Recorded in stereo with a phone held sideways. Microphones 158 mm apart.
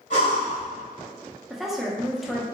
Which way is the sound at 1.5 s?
Centre (ahead or behind).